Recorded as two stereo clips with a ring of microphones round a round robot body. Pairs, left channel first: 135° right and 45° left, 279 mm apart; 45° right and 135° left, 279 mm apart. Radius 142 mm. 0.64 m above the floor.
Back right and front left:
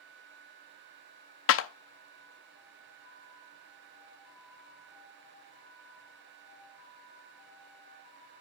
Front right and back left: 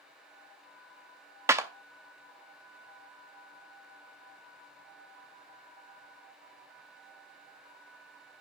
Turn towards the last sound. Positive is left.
turn(degrees=-145)